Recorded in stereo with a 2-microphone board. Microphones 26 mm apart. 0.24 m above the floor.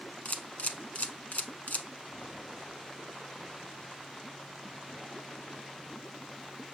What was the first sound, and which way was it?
A camera shutter, 75° left (ahead or behind).